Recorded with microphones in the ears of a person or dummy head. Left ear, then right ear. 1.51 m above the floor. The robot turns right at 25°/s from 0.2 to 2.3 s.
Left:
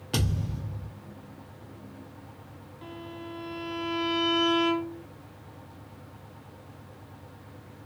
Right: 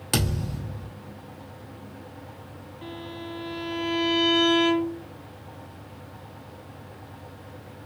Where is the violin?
5° right (ahead or behind), 0.6 m.